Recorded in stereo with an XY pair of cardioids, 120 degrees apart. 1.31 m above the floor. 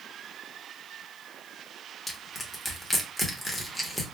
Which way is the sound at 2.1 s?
10° left.